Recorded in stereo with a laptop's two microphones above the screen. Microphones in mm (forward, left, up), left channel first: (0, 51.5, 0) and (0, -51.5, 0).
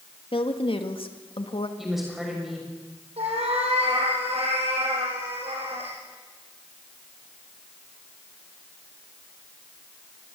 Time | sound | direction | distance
0.3 | a woman speaking | 60° left (ahead or behind) | 1.7 m
1.8 | a woman speaking | 5° right (ahead or behind) | 6.5 m
3.2 | a cat meowing | 80° right | 5.5 m